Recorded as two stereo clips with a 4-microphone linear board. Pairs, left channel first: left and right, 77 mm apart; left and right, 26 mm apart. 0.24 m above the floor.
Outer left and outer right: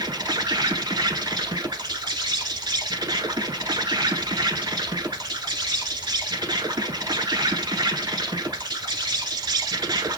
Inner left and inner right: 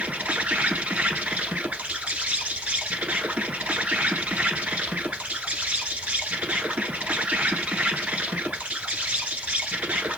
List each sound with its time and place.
0.0 s an insect: 70° right (ahead or behind), 1.0 m